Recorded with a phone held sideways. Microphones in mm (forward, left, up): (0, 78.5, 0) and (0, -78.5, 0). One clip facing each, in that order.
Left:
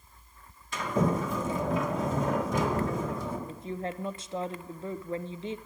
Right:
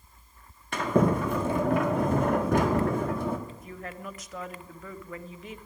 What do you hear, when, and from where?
0.7 s a sliding door: 65° right (ahead or behind), 1.5 m
3.5 s a woman speaking: 30° left (ahead or behind), 0.5 m